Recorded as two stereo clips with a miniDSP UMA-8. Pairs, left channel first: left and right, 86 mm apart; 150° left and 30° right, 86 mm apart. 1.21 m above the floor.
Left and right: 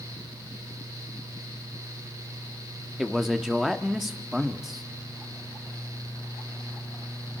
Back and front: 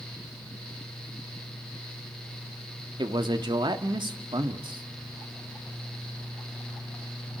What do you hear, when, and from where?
3.0 s a man speaking: 5° right, 1.9 m